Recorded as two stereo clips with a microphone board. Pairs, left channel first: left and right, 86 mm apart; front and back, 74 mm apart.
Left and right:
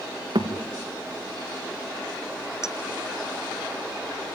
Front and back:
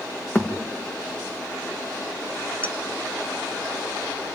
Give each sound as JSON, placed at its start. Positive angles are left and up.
{"t": 0.3, "sound": "a thud", "azimuth_deg": -70, "distance_m": 3.5}
{"t": 2.6, "sound": "a clink", "azimuth_deg": 130, "distance_m": 1.4}